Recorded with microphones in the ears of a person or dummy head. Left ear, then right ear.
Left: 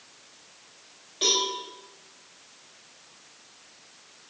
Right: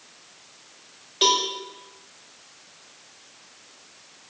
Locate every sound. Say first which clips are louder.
1.2 s a cowbell: right 4 dB; 20° right (ahead or behind), 1.3 m